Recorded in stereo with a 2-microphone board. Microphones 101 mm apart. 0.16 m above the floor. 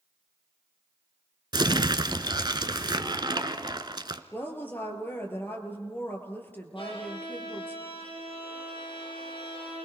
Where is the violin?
55° left (ahead or behind), 6.5 m.